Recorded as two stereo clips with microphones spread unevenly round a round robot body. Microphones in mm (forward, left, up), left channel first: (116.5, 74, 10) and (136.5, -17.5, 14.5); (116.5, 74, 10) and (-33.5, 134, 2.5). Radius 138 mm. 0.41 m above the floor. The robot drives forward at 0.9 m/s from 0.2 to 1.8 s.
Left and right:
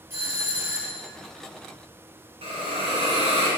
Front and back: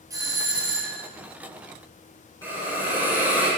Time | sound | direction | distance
0.1 | a doorbell | 135° right | 1.9 m
2.4 | a hiss | 100° right | 3.5 m